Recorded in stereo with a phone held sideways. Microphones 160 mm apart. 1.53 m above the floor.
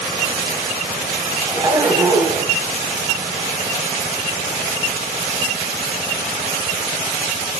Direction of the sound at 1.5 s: 10° right (ahead or behind).